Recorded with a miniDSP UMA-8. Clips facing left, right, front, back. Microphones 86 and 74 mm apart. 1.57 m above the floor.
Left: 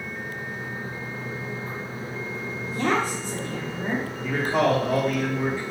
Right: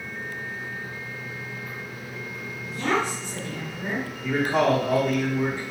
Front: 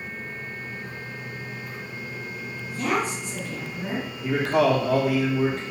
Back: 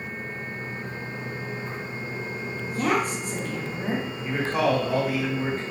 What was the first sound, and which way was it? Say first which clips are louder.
A woman speaking: left 1 dB, back 1 dB; 140° left.